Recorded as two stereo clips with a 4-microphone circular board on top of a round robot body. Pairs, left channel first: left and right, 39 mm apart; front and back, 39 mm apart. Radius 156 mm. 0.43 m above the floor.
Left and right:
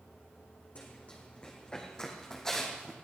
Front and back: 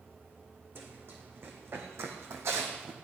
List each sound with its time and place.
0.8 s running footsteps: 145° left, 2.5 m; by 2.9 s 170° left, 2.0 m